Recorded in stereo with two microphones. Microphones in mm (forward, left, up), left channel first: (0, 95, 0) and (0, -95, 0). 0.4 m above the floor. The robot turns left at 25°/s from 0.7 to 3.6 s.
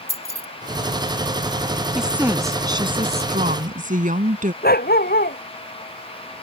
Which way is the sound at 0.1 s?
30° left (ahead or behind).